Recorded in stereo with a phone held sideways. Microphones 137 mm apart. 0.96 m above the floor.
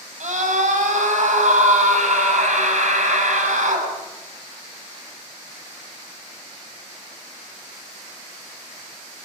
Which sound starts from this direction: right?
A scream, at 0.2 s.